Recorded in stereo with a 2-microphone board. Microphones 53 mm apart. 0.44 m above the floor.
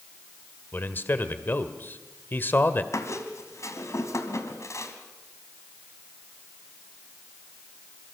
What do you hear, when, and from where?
0.7 s a man speaking: 40° left (ahead or behind), 1.6 m
2.9 s a squeak: 70° left (ahead or behind), 2.5 m